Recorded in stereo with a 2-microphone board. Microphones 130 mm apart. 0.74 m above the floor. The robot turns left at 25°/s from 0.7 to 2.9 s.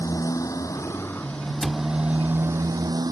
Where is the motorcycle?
25° left; by 3.1 s 30° right.